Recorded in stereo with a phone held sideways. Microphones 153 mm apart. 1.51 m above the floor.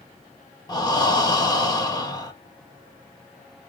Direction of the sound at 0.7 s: 25° left (ahead or behind).